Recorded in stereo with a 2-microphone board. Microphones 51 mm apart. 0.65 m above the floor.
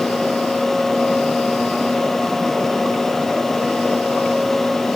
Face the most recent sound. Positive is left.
No sound to turn to.